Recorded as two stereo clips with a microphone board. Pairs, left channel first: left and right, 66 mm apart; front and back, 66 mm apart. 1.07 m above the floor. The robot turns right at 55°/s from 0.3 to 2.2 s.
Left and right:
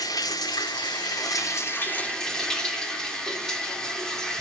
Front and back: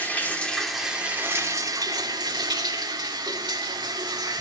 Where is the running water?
65° left, 3 m; by 4.4 s 170° left, 3 m.